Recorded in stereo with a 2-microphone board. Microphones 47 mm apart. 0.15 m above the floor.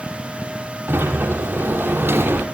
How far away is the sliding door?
About 1.9 m.